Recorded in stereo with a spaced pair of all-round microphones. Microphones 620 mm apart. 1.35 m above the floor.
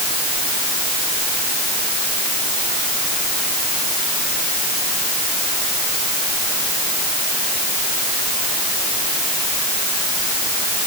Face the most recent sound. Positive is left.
No sound to turn to.